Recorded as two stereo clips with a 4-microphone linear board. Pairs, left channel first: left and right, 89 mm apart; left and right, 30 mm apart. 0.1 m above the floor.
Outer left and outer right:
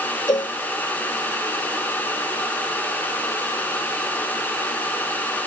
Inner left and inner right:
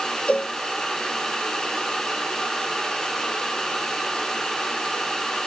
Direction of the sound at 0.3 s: 50° left (ahead or behind).